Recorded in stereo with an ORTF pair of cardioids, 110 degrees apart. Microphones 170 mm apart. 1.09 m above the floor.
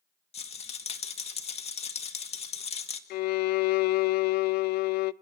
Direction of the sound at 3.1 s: 65° left.